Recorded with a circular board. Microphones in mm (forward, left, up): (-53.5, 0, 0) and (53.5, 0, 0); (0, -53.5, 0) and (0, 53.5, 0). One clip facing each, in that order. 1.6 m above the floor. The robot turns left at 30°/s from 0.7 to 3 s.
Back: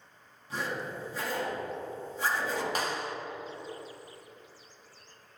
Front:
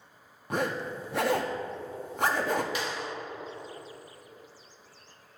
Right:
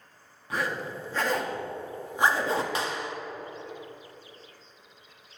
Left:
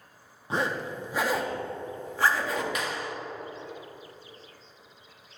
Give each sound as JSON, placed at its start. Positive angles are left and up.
{"t": 0.5, "sound": "a zipper", "azimuth_deg": 25, "distance_m": 0.7}
{"t": 2.8, "sound": "a clap", "azimuth_deg": -145, "distance_m": 0.6}